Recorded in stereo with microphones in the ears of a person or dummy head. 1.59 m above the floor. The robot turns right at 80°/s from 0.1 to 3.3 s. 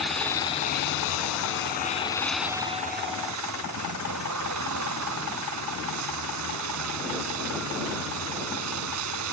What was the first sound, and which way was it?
A vehicle, 5° right.